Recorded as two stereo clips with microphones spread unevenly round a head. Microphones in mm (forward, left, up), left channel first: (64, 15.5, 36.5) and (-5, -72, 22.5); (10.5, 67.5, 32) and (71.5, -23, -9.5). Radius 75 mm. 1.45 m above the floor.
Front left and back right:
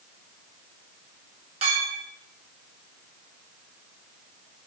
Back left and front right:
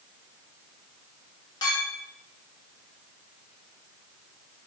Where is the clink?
Straight behind, 1.6 m.